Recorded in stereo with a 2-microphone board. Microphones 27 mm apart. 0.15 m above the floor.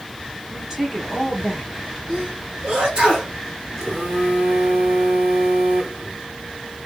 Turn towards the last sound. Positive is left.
turn(degrees=-25)  # may be behind; listen again after turning